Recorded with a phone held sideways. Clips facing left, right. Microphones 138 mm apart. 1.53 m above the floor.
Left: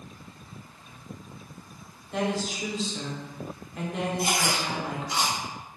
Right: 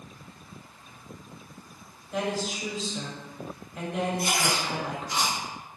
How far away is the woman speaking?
About 0.9 m.